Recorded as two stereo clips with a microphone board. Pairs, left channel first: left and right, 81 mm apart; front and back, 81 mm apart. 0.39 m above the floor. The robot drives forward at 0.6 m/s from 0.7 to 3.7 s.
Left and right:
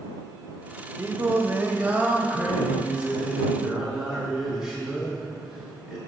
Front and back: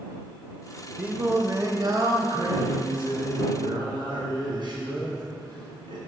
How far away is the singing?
About 0.6 m.